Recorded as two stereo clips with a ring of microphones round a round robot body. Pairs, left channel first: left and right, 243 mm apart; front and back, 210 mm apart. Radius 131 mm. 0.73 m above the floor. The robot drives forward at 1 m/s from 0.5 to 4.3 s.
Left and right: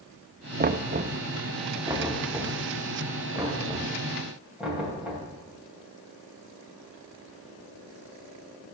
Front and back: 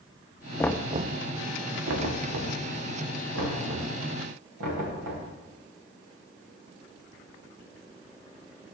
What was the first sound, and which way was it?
Knocking, 65° right.